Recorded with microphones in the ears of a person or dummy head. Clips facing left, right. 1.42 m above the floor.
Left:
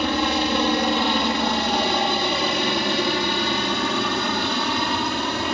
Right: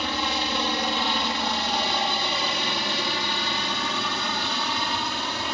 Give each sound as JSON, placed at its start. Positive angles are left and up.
{"t": 0.0, "sound": "a helicopter", "side_deg": 55}